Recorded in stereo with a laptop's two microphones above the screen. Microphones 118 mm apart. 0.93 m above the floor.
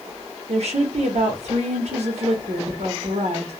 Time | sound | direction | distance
0.5 | a woman speaking | 70° right (ahead or behind) | 0.9 m